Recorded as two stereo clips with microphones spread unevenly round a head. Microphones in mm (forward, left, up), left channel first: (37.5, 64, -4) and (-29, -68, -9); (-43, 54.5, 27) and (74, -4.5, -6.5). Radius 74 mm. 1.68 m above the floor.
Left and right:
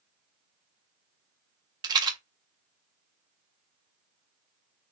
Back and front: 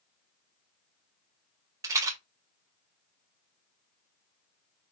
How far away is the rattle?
About 0.8 m.